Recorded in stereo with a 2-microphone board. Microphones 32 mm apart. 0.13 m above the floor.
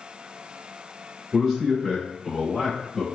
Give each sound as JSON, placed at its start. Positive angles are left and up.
{"t": 1.3, "sound": "a man speaking", "side_deg": 5, "distance_m": 1.6}